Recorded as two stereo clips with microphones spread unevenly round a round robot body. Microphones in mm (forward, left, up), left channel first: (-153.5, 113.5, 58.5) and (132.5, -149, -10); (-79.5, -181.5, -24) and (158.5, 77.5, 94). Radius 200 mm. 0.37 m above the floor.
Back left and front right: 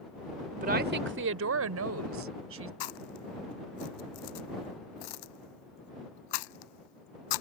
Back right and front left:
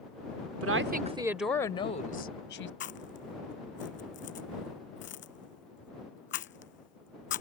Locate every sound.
0.6 s a woman speaking: straight ahead; by 2.7 s 90° right
2.8 s chewing: 165° left